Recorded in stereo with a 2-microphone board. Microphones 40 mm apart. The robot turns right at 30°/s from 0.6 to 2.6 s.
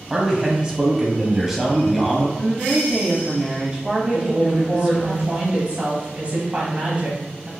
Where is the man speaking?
20° right (ahead or behind), 1.1 m; by 2.3 s 5° left (ahead or behind), 1.1 m.